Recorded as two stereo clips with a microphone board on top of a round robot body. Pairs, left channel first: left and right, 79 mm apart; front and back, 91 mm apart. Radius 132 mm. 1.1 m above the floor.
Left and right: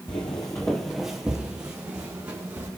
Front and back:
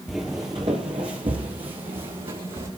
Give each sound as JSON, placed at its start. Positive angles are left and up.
{"t": 0.1, "sound": "footsteps", "azimuth_deg": 90, "distance_m": 1.2}